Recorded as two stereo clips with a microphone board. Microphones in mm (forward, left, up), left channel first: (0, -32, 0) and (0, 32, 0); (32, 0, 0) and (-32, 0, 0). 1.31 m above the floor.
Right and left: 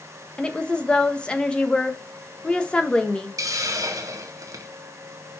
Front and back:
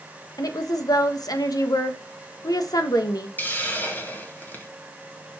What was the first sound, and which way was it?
A woman speaking, 15° right.